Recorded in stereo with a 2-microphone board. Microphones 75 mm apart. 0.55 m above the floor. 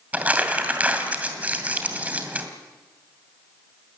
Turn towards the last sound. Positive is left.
turn(degrees=-20)  # may be behind; listen again after turning